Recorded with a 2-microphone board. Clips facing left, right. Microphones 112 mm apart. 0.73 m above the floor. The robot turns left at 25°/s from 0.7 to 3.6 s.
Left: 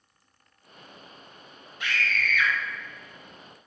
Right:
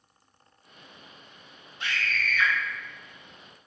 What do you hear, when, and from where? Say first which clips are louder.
1.8 s a scream: left 2 dB; 30° right (ahead or behind), 0.9 m; by 2.5 s 35° right (ahead or behind), 0.9 m